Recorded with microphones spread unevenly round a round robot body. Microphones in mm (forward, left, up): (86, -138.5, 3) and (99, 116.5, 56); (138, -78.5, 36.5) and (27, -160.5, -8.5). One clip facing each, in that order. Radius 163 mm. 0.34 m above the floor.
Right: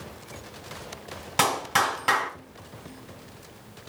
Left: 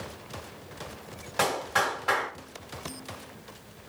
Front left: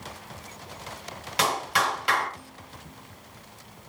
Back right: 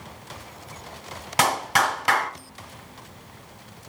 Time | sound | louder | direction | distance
1.4 | a clap | right 1 dB, back right 4 dB | 135° right | 2.5 m